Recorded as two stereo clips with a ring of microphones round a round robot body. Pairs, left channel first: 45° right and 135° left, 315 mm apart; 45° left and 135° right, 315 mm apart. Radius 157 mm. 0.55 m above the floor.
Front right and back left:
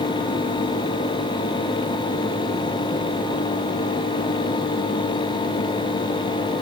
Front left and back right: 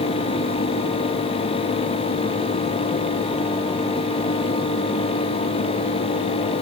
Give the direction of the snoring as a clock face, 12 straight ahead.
No snoring in this recording.